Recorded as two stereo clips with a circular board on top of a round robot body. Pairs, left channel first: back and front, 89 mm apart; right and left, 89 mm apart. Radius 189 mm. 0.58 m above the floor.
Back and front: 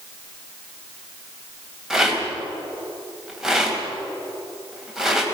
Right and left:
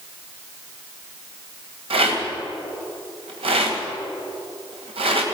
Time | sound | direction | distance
1.9 | a rattle | 85° left | 2 m